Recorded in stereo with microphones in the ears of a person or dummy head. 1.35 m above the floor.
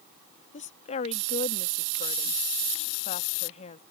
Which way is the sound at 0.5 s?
35° left (ahead or behind).